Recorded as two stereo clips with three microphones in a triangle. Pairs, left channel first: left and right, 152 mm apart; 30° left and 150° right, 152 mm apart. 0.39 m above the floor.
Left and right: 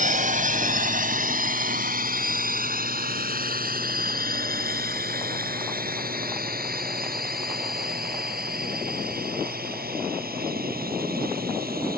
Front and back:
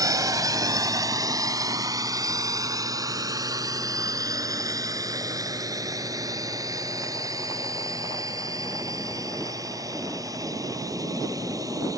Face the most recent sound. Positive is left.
turn(degrees=-80)